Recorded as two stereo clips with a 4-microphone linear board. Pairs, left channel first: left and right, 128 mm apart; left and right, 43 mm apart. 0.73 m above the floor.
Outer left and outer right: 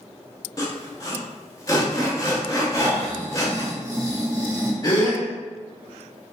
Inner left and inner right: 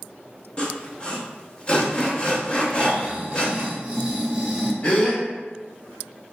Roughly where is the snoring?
Right.